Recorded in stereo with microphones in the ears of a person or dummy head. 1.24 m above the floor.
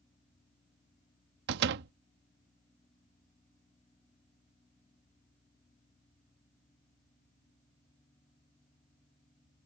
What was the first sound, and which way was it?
A door slam, 65° right (ahead or behind).